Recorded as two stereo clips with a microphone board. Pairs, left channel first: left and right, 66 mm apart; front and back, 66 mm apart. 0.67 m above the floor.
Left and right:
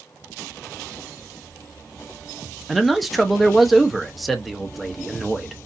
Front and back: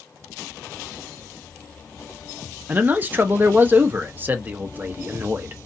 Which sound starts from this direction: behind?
A man speaking, at 2.7 s.